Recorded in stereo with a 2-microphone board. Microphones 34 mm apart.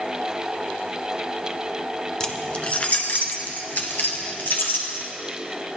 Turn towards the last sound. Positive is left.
turn(degrees=65)  # may be behind; listen again after turning